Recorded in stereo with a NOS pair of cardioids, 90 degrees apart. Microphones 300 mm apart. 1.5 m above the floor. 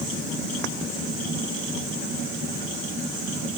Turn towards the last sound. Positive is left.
No sound to turn to.